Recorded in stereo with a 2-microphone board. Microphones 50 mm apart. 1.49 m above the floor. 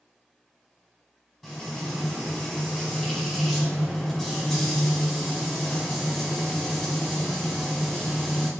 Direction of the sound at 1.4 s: Centre (ahead or behind).